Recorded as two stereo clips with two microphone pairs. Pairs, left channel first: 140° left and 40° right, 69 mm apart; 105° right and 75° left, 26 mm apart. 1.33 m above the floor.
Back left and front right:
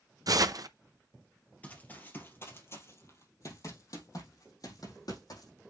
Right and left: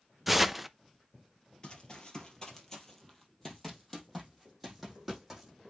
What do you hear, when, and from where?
0.3 s tearing paper: 5° right, 0.5 m
1.6 s running footsteps: 155° right, 2 m; by 5.5 s 160° left, 4 m